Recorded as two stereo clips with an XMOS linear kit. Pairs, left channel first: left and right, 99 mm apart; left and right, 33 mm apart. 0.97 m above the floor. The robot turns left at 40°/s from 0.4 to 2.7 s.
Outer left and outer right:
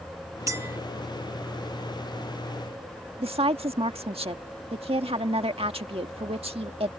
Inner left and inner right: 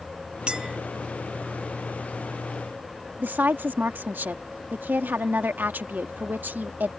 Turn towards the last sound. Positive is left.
turn(degrees=-75)  # may be behind; listen again after turning